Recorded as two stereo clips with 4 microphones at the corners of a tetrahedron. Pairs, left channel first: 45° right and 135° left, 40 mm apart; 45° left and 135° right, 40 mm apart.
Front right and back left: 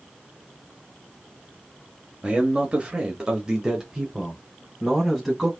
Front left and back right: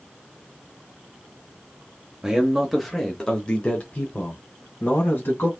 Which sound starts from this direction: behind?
A man speaking, at 2.2 s.